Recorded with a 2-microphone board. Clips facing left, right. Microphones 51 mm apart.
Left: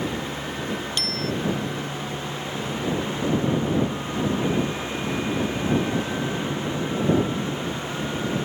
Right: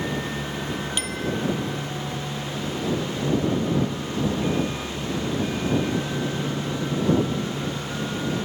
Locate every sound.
1.0 s a bicycle bell: 10° right (ahead or behind)